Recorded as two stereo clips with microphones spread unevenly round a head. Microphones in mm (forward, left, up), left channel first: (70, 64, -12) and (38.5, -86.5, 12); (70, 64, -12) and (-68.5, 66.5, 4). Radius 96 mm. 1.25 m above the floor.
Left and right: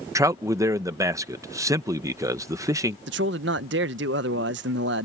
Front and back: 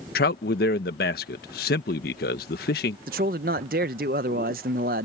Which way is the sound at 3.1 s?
135° right.